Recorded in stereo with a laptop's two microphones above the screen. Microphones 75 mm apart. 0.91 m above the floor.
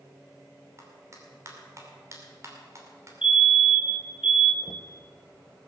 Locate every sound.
0.8 s a clap: 45° right (ahead or behind), 2.5 m
3.2 s a fire alarm: 10° right (ahead or behind), 1.4 m
4.6 s knocking: 60° left (ahead or behind), 0.7 m